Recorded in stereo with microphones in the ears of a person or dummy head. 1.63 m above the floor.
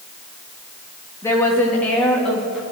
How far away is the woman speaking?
About 2.5 m.